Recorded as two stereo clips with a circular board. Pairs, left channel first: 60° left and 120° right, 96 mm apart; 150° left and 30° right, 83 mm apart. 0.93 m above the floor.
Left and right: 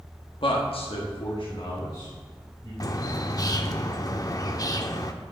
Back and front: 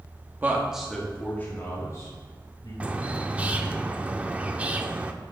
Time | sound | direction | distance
0.4 | a man speaking | 35° left | 1.5 m
2.8 | a bird | 35° left | 0.6 m